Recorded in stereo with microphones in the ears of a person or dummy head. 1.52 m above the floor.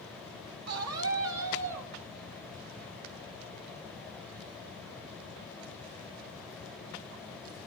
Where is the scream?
90° right, 5 m; by 1.9 s 70° right (ahead or behind), 6 m.